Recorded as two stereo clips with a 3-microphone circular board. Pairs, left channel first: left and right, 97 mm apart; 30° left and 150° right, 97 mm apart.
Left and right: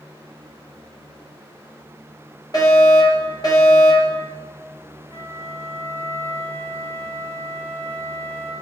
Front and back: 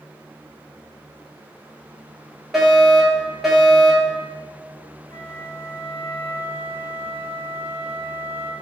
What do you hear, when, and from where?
2.5 s a fire alarm: 125° left, 4 m
5.1 s a flute: 25° left, 2.5 m